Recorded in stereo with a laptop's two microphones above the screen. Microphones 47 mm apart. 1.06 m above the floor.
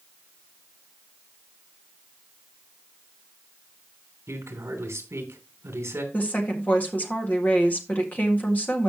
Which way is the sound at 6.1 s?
35° left (ahead or behind).